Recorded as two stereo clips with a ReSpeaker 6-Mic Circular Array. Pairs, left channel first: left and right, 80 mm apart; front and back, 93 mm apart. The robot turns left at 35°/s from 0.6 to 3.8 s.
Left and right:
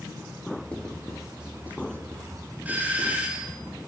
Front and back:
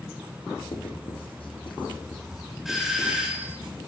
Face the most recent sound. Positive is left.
turn(degrees=-140)